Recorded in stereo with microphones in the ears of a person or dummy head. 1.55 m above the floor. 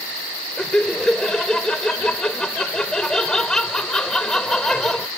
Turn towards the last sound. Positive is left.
turn(degrees=5)  # may be behind; listen again after turning